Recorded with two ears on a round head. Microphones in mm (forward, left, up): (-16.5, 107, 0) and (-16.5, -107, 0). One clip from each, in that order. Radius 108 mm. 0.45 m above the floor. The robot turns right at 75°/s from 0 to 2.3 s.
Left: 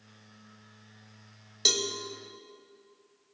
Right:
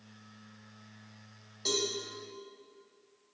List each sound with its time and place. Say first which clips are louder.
1.6 s a cowbell: left 6 dB; 65° left (ahead or behind), 0.8 m; by 1.9 s 80° left, 0.8 m